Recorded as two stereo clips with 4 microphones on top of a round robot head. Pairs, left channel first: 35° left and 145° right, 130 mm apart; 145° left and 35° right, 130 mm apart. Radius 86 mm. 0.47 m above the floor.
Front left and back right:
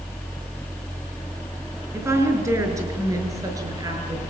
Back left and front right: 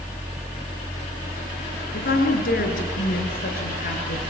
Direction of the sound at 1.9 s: 145° left.